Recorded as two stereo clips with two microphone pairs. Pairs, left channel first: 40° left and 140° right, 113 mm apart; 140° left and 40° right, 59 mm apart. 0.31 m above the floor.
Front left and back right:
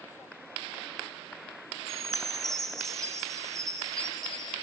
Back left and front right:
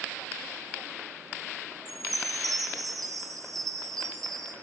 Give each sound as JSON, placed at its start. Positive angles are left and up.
{"t": 1.9, "sound": "a chime", "azimuth_deg": -45, "distance_m": 4.0}